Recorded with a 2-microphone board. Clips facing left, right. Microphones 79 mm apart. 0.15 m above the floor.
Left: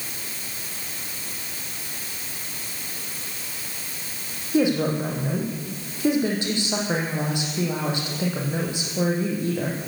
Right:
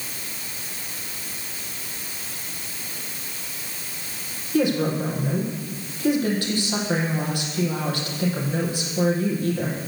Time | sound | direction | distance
4.5 | a woman speaking | 20° left (ahead or behind) | 5.5 m